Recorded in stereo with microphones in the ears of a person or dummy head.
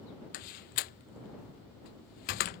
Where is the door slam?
50° left (ahead or behind).